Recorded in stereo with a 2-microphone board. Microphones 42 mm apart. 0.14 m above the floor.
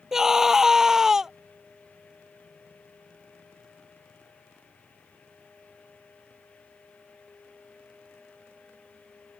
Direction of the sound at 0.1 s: 10° right (ahead or behind).